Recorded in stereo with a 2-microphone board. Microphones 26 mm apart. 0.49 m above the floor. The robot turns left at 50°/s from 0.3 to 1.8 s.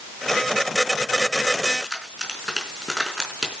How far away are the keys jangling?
About 4 m.